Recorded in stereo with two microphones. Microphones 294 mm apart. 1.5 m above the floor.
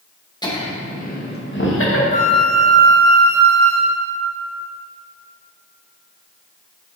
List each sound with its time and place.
0.4 s laughter: 15° left (ahead or behind), 1.8 m; by 2.0 s 50° left (ahead or behind), 1.9 m
2.1 s a flute: 30° left (ahead or behind), 2.0 m